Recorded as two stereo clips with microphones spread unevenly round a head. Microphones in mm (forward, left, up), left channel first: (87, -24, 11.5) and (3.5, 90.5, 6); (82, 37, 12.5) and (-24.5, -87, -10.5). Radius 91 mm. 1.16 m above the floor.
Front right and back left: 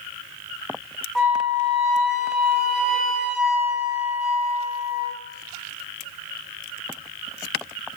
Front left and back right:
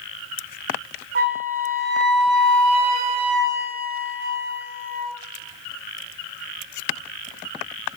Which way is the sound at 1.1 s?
140° right.